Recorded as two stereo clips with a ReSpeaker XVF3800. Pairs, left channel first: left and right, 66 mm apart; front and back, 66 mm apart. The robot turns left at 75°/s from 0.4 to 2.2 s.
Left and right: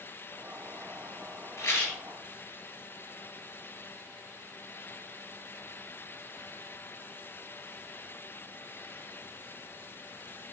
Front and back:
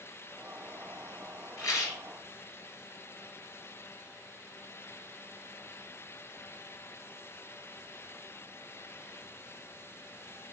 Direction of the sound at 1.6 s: 50° left.